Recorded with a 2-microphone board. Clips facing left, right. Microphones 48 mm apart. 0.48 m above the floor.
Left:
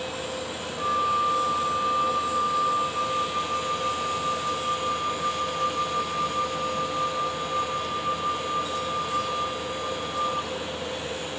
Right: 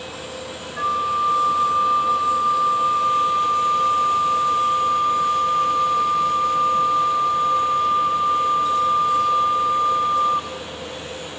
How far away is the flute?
About 0.5 m.